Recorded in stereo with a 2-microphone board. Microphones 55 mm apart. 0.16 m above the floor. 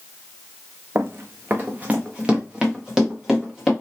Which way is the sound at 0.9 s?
55° right (ahead or behind).